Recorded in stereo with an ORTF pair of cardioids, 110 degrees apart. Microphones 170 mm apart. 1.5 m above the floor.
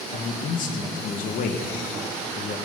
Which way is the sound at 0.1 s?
55° left.